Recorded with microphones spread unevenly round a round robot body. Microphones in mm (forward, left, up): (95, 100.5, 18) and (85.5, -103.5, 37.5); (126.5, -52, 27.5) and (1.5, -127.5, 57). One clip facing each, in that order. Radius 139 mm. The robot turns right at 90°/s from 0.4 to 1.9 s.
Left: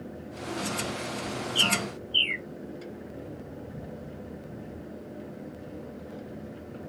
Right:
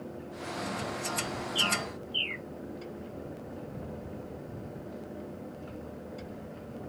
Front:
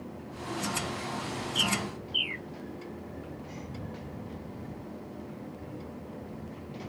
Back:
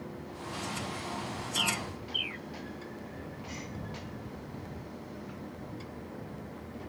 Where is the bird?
75° left; by 2.5 s 105° left.